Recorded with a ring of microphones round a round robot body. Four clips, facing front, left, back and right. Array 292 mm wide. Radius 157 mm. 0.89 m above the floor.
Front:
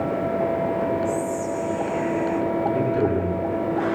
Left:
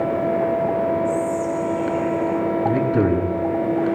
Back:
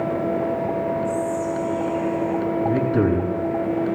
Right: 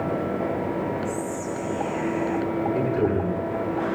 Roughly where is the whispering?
Right.